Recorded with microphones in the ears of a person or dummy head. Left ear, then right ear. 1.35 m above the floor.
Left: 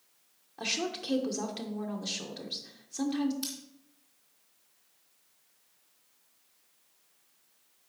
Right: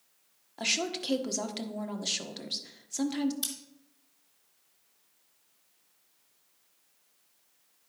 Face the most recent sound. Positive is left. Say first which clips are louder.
# right 1 dB
turn(degrees=-20)  # may be behind; listen again after turning